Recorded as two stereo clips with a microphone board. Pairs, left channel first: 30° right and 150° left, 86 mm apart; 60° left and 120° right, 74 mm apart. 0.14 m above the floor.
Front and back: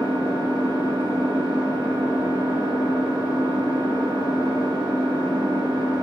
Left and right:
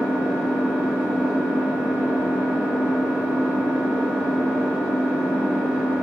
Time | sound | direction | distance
0.0 | an engine running | 165° left | 2 m